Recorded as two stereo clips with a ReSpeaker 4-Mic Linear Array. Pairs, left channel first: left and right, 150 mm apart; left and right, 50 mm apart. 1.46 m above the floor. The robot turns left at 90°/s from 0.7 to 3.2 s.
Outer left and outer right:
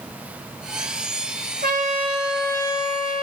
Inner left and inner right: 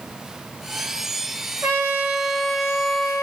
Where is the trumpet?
110° right, 1.2 m; by 3.2 s 105° left, 1.2 m.